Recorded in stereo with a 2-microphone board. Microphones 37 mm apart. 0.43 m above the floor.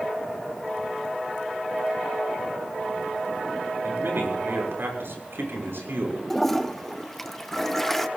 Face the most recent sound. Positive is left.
turn(degrees=5)  # may be behind; listen again after turning